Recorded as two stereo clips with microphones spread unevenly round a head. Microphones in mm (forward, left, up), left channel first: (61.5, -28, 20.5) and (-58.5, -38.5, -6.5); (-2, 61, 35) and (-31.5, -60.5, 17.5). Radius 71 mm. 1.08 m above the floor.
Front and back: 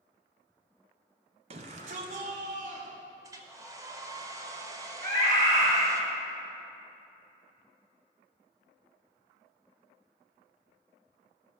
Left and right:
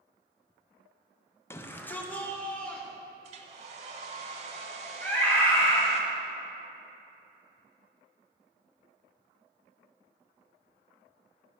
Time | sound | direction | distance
1.5 | a shout | 150° left | 0.8 m
3.2 | a hair dryer | 110° right | 0.9 m
5.0 | a scream | 150° left | 3 m